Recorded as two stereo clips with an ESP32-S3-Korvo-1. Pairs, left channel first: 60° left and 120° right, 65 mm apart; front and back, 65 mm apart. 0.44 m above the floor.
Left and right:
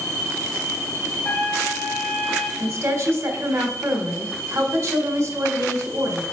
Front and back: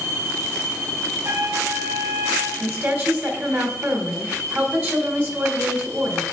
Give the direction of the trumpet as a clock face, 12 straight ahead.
8 o'clock.